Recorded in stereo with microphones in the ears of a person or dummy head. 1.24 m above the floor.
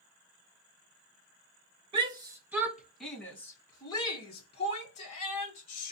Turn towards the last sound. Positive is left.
turn(degrees=45)  # may be behind; listen again after turning